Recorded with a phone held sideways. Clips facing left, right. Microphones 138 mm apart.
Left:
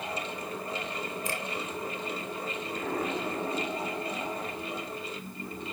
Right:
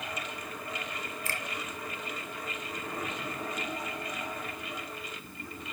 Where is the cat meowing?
I don't hear a cat meowing.